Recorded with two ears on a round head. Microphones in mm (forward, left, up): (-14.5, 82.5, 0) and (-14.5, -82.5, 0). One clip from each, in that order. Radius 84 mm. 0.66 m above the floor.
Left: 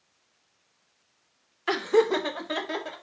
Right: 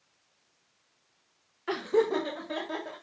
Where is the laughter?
55° left (ahead or behind), 1.5 m; by 3.0 s 65° left (ahead or behind), 3 m.